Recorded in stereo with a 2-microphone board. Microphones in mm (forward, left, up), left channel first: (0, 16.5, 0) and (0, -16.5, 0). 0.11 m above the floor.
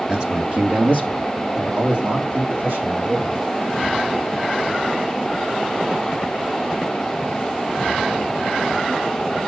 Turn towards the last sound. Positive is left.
turn(degrees=-65)  # may be behind; listen again after turning